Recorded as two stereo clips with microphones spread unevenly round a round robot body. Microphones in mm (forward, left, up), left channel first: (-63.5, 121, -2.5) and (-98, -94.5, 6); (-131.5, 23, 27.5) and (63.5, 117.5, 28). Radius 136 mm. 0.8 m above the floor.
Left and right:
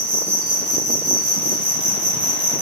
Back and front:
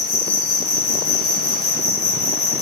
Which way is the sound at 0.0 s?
135° right.